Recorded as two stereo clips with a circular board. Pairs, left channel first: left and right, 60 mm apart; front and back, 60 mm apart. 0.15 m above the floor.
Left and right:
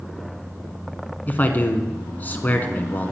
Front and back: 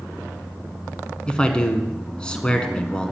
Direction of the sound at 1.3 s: 65° left.